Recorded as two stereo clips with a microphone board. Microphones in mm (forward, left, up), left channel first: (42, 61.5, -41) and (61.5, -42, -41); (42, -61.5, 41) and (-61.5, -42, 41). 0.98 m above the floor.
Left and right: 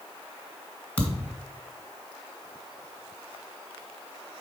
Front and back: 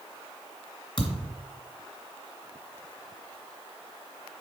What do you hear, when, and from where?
1.0 s a thud: 25° left, 2 m